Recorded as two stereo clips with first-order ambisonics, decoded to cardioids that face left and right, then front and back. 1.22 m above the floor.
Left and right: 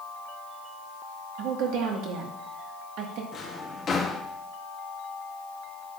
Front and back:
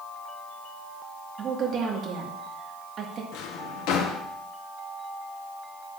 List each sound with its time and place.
1.4 s a woman speaking: 120° right, 1.7 m
3.3 s a drawer: 25° left, 1.0 m